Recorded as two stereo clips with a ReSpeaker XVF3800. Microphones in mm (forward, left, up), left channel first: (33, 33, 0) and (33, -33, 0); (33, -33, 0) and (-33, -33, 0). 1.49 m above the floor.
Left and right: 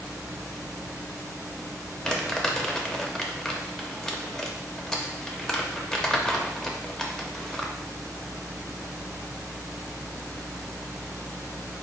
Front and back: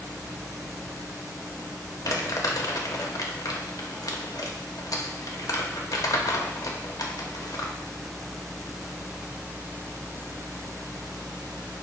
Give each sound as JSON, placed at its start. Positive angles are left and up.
{"t": 2.0, "sound": "crumpling", "azimuth_deg": 5, "distance_m": 0.7}